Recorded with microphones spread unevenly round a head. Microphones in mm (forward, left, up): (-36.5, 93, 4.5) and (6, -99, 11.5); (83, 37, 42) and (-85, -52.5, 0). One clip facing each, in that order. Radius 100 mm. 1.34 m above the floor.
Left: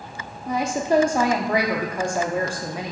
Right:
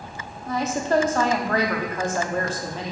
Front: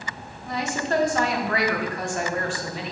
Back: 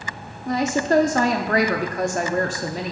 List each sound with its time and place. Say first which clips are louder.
0.5 s a woman speaking: left 1 dB, back 6 dB; straight behind, 0.6 m